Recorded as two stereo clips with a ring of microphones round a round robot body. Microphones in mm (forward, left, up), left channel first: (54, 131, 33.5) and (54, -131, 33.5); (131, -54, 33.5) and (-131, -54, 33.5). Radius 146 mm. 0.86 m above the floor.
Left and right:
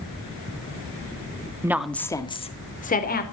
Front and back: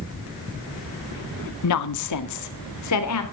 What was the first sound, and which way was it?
A woman speaking, 10° right.